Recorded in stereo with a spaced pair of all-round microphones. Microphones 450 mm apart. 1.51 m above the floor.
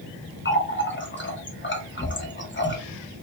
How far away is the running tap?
About 0.7 m.